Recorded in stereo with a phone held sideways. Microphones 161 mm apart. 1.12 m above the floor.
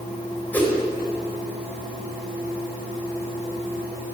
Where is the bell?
I don't hear a bell.